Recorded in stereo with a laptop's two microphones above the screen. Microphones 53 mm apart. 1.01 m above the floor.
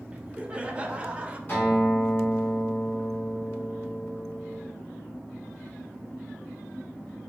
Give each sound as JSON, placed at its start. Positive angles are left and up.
{"t": 0.1, "sound": "laughter", "side_deg": -20, "distance_m": 0.5}
{"t": 1.5, "sound": "a guitar", "side_deg": 40, "distance_m": 2.5}